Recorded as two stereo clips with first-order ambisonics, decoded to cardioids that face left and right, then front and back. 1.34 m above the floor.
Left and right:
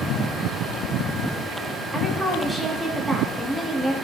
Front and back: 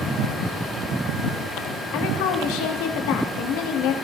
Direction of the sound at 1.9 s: 10° right.